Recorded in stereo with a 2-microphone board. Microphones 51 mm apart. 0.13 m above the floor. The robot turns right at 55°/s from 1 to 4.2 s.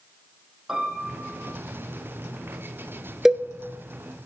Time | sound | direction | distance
0.7 | a piano | 5° right (ahead or behind) | 4 m
3.2 | a cowbell | 10° right (ahead or behind) | 0.7 m